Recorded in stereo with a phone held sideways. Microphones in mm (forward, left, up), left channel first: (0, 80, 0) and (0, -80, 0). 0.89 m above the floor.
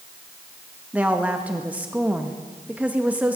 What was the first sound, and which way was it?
A woman speaking, 10° right (ahead or behind).